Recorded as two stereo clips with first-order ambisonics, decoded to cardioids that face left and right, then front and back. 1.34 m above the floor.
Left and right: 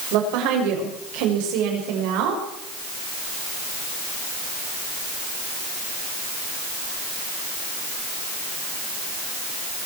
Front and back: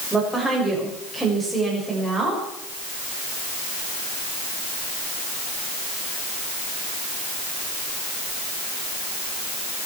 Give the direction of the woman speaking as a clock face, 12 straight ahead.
3 o'clock.